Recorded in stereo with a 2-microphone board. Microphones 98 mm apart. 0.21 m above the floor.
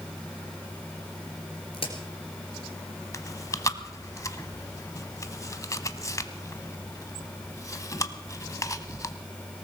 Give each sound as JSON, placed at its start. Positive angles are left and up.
{"t": 1.7, "sound": "a crack", "side_deg": 65, "distance_m": 2.5}
{"t": 3.1, "sound": "chewing", "side_deg": 35, "distance_m": 0.8}